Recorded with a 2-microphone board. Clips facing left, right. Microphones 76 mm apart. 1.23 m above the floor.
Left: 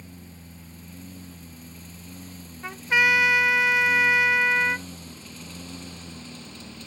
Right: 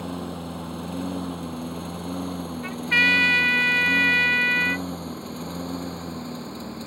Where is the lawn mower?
70° right (ahead or behind); by 6.9 s 35° right (ahead or behind).